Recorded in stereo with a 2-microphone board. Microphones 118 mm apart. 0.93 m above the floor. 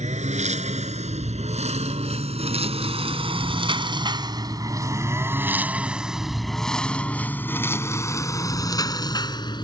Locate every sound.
0.0 s a lawn mower: 75° right (ahead or behind); by 9.6 s 40° left (ahead or behind)